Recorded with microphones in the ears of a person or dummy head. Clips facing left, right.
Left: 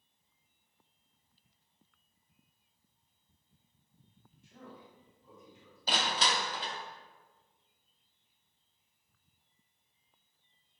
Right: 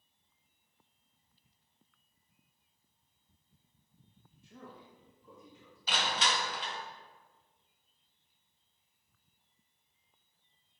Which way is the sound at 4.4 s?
70° right (ahead or behind).